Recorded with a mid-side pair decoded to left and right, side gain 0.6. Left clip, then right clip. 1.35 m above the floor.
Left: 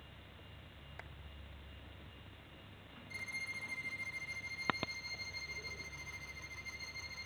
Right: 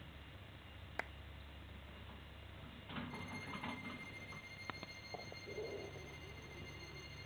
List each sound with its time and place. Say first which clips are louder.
1.0 s a clap: right 9 dB; 45° right
3.1 s a violin: left 6 dB; 50° left